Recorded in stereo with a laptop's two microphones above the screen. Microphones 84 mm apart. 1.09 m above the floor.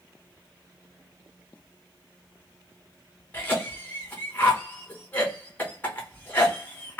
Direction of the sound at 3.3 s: 20° left (ahead or behind).